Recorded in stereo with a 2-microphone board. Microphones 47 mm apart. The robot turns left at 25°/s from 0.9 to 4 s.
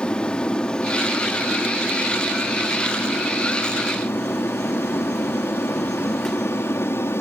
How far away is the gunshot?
No gunshot in this recording.